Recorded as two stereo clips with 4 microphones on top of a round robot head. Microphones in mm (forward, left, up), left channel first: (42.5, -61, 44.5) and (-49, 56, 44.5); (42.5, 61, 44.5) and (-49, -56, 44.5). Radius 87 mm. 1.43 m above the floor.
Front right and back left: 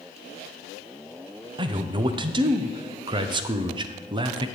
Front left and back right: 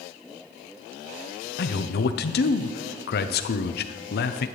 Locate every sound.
1.6 s a man speaking: 65° left, 0.6 m